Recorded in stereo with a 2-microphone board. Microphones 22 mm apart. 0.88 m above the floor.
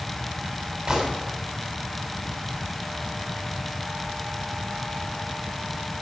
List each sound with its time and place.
0.9 s a gunshot: 30° right (ahead or behind), 7 m